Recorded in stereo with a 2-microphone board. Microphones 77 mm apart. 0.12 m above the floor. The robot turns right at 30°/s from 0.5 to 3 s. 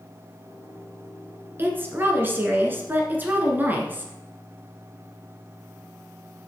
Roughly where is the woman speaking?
Right.